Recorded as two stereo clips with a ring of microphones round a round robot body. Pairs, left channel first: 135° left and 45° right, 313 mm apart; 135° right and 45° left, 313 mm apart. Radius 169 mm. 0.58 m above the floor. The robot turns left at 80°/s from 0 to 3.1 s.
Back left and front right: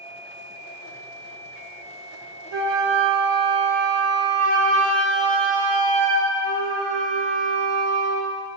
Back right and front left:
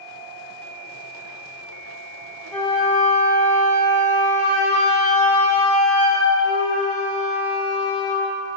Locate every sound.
2.5 s a flute: 45° right, 1.1 m; by 8.3 s 95° right, 1.1 m